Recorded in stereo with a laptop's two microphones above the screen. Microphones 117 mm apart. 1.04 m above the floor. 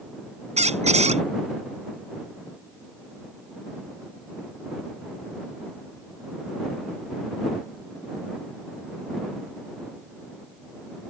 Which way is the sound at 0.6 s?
75° right (ahead or behind).